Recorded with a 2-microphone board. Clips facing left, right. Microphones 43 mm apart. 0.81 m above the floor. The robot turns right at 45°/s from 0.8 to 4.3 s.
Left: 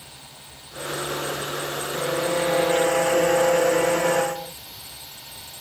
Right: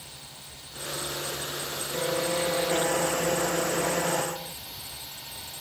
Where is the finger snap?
No finger snap in this recording.